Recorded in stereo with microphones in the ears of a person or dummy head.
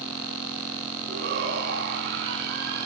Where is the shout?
65° right (ahead or behind), 3 m.